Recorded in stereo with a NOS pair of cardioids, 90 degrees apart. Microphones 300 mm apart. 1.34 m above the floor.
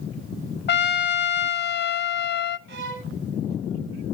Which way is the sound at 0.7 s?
35° left.